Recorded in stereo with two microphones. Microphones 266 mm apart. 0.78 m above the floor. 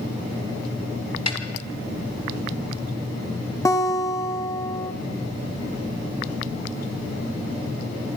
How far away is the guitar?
About 1.5 m.